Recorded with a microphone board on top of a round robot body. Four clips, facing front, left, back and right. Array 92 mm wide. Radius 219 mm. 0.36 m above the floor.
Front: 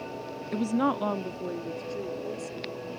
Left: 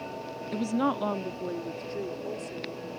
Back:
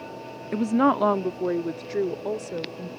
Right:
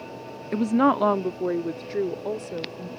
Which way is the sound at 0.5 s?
120° right.